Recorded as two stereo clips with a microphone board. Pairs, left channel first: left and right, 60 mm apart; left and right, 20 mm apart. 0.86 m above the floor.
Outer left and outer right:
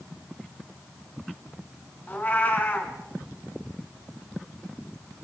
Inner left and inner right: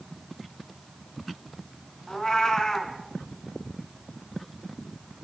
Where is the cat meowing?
30° left (ahead or behind), 3 m.